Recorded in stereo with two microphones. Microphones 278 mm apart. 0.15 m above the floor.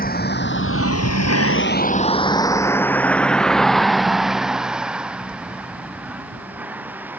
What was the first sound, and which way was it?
A vehicle, 30° left (ahead or behind).